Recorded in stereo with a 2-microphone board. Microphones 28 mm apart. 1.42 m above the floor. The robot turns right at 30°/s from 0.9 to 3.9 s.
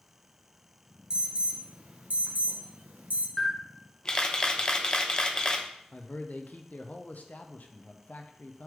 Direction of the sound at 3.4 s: 15° left (ahead or behind).